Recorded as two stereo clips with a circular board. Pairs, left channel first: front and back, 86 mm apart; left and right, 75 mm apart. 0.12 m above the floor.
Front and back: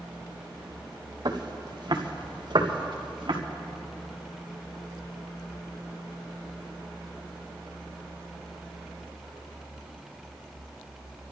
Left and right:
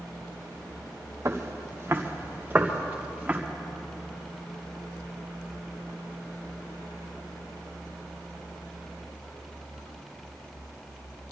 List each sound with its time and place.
1.2 s footsteps: 145° right, 2.5 m; by 3.4 s 160° right, 3.5 m